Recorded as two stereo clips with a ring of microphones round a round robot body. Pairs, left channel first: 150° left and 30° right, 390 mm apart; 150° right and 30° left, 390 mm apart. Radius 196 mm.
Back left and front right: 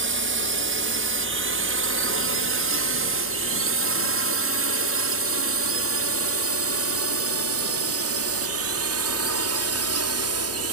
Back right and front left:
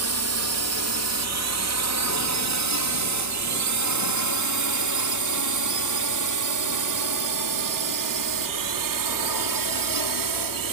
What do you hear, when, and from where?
0.0 s a drone: 10° left; by 10.7 s 15° left